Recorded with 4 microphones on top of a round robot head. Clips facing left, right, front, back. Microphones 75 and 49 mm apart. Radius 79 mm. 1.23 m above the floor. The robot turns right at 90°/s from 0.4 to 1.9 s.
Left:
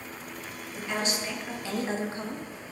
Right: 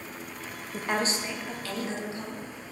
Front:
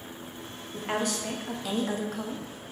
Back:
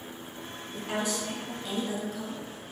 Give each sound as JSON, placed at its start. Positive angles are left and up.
{"t": 0.7, "sound": "a woman speaking", "azimuth_deg": -65, "distance_m": 0.6}